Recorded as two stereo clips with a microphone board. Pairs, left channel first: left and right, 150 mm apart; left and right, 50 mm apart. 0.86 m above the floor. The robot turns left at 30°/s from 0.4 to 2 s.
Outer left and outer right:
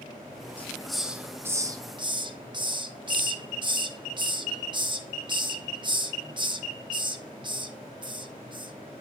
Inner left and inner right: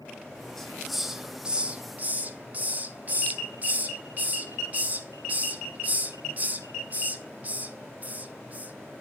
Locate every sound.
0.6 s a hiss: 10° left (ahead or behind), 0.7 m; by 8.7 s 30° right (ahead or behind), 0.7 m